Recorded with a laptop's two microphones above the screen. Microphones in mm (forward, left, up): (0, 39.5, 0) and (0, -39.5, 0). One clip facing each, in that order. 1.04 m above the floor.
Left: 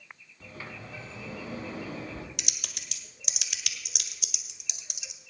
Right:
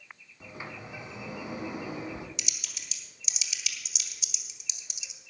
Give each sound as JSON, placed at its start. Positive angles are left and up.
{"t": 0.4, "sound": "a sliding door", "side_deg": -15, "distance_m": 1.8}
{"t": 2.4, "sound": "typing on a keyboard", "side_deg": 60, "distance_m": 1.5}